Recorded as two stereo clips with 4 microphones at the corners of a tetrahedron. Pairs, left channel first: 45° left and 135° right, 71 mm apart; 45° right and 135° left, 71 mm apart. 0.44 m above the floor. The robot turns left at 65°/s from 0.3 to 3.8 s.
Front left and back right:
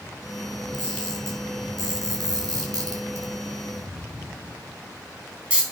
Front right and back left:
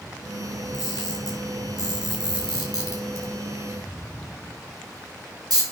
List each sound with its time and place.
0.7 s a camera shutter: 10° right, 5 m; by 5.6 s 150° left, 5 m